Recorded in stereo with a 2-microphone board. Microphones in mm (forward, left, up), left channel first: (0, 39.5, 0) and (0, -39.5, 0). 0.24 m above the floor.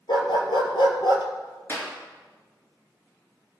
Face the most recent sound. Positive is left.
turn(degrees=30)  # may be behind; listen again after turning